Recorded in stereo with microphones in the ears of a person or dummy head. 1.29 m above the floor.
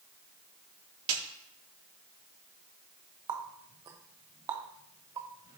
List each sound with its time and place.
1.1 s a snare drum: 45° right (ahead or behind), 1.8 m
3.3 s a running tap: 20° right (ahead or behind), 0.7 m